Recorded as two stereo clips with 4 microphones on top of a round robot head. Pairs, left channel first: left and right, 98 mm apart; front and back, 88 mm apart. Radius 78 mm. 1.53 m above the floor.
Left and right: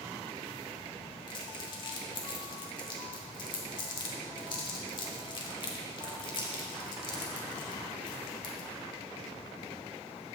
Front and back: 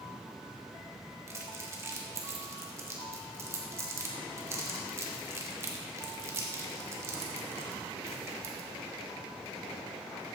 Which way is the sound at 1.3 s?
125° left.